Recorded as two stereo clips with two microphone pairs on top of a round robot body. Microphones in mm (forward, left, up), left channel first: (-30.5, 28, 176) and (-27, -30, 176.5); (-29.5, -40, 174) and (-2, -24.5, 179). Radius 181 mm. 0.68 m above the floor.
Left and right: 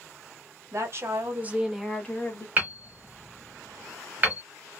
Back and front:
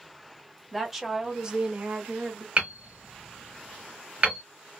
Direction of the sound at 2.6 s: 25° right.